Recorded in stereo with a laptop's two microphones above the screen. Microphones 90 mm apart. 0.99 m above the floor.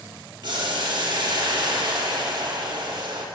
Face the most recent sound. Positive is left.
turn(degrees=-55)  # may be behind; listen again after turning